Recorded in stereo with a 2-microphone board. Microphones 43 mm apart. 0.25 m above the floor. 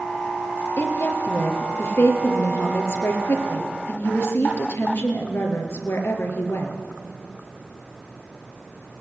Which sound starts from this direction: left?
A woman speaking, at 0.8 s.